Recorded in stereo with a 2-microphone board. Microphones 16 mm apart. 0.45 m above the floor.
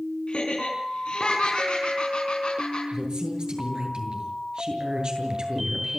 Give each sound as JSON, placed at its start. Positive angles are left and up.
{"t": 0.3, "sound": "laughter", "side_deg": 75, "distance_m": 6.0}
{"t": 2.9, "sound": "a woman speaking", "side_deg": -50, "distance_m": 8.0}